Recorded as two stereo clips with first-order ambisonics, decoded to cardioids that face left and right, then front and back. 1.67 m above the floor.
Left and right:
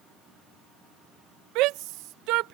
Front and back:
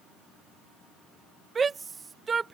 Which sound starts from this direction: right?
A shout, at 1.6 s.